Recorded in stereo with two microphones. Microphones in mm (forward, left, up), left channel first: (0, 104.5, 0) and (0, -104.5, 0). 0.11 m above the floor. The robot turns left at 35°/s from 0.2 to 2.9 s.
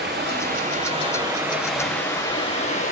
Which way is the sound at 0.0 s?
125° right.